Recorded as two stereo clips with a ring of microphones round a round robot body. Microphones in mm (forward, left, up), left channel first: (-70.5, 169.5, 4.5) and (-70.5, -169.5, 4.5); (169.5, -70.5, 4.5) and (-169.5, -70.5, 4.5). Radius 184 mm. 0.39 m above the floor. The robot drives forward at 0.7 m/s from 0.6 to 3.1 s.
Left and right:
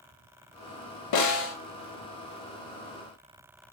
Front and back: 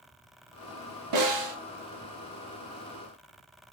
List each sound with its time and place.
1.1 s a snare drum: 130° left, 0.6 m; by 1.6 s 145° left, 0.8 m